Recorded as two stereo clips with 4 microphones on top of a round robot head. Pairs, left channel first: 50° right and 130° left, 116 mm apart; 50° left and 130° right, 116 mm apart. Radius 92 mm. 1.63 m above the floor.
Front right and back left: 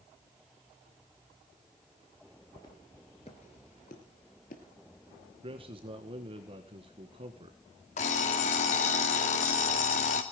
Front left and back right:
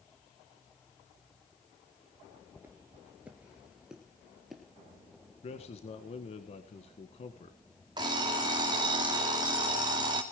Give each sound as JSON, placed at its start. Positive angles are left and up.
{"t": 2.6, "sound": "footsteps", "azimuth_deg": -80, "distance_m": 1.6}
{"t": 5.4, "sound": "a man speaking", "azimuth_deg": 85, "distance_m": 1.7}
{"t": 8.0, "sound": "an alarm clock", "azimuth_deg": -75, "distance_m": 2.0}